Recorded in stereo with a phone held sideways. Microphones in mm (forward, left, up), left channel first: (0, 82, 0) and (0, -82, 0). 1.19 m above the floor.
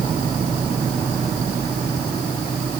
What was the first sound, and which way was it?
Only background noise.